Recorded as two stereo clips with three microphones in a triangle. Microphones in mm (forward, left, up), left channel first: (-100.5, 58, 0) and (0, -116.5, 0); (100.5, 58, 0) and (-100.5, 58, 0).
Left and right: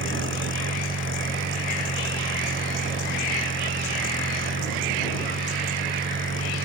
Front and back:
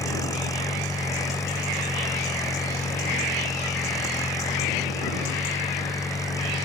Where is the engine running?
75° right.